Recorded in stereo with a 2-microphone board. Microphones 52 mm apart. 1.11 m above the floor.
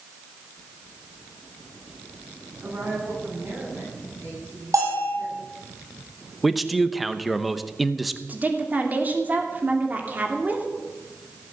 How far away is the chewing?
No chewing in this recording.